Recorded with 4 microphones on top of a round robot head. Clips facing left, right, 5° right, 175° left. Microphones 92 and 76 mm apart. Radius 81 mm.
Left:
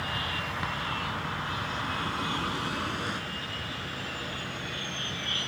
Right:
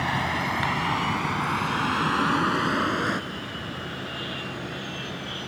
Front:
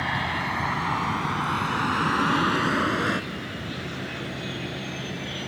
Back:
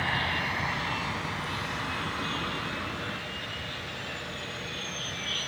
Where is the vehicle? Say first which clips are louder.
Right 8 dB, front 3 dB; 85° right; by 5.5 s 30° right.